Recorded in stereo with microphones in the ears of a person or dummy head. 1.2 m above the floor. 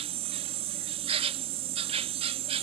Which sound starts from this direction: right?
An insect, at 0.0 s.